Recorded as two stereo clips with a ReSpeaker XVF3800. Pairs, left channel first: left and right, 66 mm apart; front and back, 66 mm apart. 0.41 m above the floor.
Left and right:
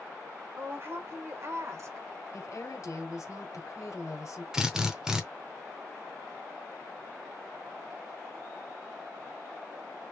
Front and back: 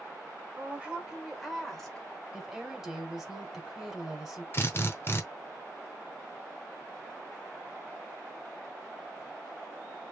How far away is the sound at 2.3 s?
About 2 m.